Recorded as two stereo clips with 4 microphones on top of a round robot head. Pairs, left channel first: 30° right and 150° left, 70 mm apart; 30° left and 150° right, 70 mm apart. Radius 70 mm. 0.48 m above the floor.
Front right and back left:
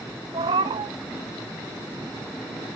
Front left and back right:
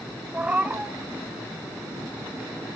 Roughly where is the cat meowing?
Behind left.